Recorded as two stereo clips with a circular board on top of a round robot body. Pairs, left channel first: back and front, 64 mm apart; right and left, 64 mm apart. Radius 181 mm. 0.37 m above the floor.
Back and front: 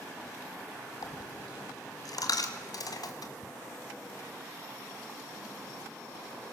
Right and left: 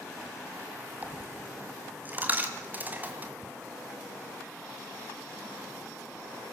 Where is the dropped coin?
155° left, 1.9 m.